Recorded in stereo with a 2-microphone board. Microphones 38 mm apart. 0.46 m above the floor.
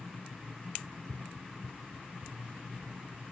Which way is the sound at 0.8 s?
40° right (ahead or behind).